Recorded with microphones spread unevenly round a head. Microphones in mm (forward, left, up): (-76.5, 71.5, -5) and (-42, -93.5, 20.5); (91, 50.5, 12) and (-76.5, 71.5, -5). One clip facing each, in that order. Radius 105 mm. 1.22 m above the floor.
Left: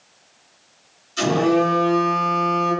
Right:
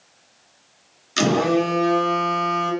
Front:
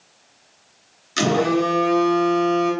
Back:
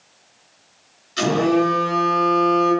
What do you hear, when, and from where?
1.2 s a phone buzzing: 55° right, 0.5 m